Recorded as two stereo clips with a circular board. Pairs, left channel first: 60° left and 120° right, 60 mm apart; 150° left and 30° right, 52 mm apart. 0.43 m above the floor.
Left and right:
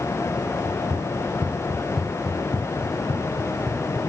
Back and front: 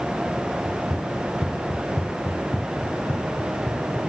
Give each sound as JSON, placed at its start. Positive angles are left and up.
{"t": 0.7, "sound": "running footsteps", "azimuth_deg": -170, "distance_m": 1.8}